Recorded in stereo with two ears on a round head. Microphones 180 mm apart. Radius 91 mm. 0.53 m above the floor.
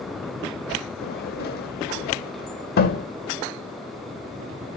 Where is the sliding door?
50° left (ahead or behind), 1.0 m.